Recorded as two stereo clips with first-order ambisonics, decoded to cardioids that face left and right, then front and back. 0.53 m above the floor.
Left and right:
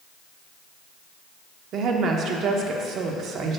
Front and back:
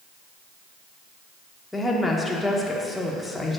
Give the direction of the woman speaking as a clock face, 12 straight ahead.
3 o'clock.